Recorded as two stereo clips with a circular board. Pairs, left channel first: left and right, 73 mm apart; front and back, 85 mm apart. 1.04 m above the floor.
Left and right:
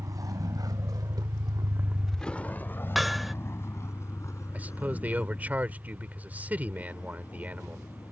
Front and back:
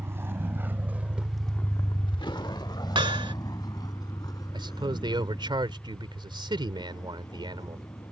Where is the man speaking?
160° right.